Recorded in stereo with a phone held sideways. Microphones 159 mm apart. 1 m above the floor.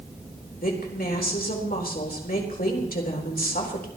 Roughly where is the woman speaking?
Left.